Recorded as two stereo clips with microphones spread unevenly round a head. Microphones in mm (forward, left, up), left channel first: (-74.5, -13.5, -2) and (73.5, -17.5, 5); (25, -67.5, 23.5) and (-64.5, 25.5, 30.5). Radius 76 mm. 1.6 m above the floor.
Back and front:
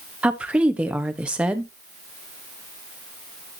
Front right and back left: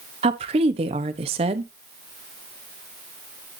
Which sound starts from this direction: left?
A woman speaking, at 0.2 s.